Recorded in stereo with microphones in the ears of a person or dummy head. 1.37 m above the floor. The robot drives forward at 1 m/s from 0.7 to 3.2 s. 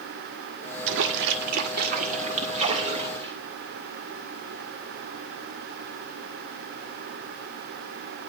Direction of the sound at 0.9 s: 70° right (ahead or behind).